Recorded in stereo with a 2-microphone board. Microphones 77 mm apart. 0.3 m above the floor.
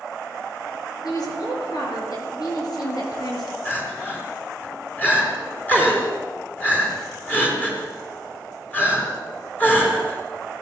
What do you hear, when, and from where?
1.0 s a woman speaking: 60° left (ahead or behind), 5.5 m
3.6 s crying: 25° left (ahead or behind), 3.5 m